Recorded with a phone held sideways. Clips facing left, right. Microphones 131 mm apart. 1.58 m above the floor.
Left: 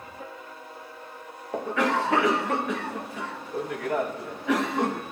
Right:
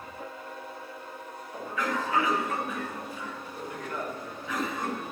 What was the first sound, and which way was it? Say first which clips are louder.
A cough: left 7 dB; 70° left (ahead or behind).